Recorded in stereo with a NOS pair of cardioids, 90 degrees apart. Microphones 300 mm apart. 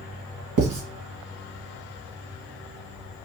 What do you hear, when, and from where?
0.6 s writing: 65° right, 1.4 m